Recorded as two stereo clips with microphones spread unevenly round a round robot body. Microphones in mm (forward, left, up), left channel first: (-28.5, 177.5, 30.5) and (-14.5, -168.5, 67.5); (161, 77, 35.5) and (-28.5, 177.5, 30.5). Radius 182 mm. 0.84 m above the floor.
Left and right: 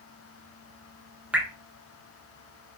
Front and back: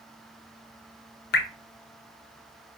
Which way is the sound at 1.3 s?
5° left.